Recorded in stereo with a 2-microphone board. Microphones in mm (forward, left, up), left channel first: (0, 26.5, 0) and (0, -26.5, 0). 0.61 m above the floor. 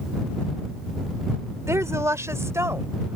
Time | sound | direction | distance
1.7 | a woman speaking | 70° right (ahead or behind) | ?